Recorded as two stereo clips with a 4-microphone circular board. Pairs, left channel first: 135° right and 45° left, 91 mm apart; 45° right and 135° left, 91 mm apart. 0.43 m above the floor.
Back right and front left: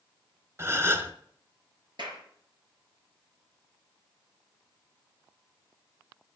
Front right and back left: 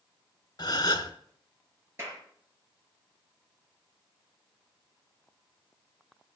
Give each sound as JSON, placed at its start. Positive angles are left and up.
{"t": 0.6, "sound": "a gasp", "azimuth_deg": -10, "distance_m": 1.1}
{"t": 2.0, "sound": "a clap", "azimuth_deg": 75, "distance_m": 5.0}